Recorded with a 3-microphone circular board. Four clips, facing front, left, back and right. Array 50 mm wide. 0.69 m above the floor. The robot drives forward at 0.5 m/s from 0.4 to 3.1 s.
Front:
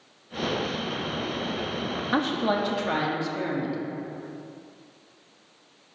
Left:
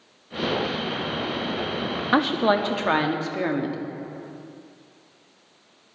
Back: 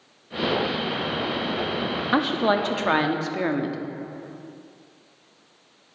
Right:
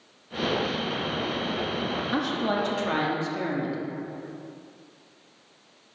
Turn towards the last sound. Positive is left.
turn(degrees=145)